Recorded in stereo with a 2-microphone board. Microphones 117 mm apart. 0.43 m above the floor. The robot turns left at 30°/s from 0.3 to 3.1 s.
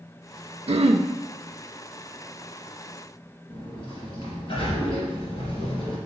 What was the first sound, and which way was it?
Throat clearing, 60° right (ahead or behind).